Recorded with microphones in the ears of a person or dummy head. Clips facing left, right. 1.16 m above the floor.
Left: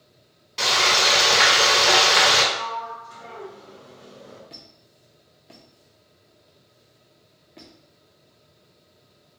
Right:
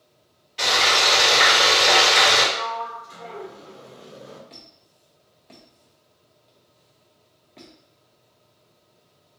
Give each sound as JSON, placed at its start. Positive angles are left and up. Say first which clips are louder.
{"t": 0.6, "sound": "frying", "louder": "even", "side_deg": 65, "distance_m": 1.5}
{"t": 2.5, "sound": "a sliding door", "louder": "right 2 dB", "side_deg": -45, "distance_m": 1.0}
{"t": 4.5, "sound": "a squeak", "louder": "left 1 dB", "side_deg": 10, "distance_m": 0.5}